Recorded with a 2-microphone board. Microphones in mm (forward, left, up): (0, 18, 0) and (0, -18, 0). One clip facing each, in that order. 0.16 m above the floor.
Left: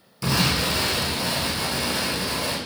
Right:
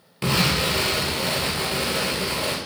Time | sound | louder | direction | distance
0.2 | an explosion | right 1 dB | 50° right (ahead or behind) | 0.8 m